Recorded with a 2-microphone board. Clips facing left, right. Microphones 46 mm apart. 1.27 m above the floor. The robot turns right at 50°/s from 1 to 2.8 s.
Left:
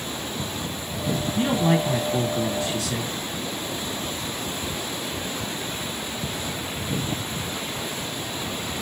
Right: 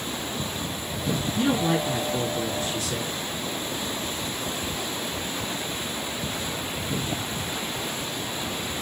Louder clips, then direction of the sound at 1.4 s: Left 2 dB; 15° left.